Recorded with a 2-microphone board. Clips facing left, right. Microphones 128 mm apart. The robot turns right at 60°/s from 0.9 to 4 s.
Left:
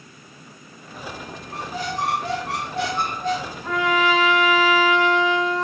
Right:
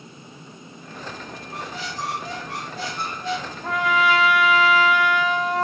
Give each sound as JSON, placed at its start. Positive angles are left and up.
{"t": 1.5, "sound": "a squeak", "azimuth_deg": 30, "distance_m": 0.8}
{"t": 3.6, "sound": "a trumpet", "side_deg": -65, "distance_m": 1.9}